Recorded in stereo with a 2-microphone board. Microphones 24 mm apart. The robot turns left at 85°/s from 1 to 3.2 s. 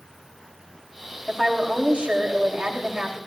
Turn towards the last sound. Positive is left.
turn(degrees=-160)